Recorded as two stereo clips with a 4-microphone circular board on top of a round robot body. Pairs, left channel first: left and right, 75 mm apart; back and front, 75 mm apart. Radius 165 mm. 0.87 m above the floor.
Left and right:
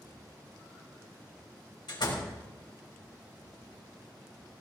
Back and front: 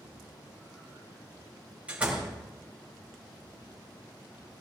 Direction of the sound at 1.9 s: 75° left.